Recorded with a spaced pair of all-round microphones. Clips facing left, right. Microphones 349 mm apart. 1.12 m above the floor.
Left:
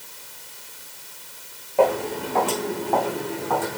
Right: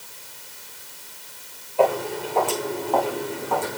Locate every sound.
1.8 s footsteps: 80° left, 5.5 m; by 3.8 s 75° left (ahead or behind), 4 m